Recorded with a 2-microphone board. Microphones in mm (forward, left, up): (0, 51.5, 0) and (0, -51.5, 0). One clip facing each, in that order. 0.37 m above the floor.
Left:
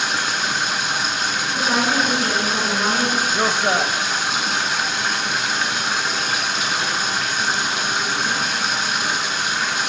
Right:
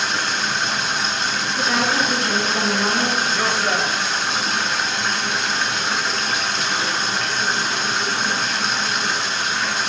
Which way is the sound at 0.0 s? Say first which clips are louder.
Even; 5° left (ahead or behind).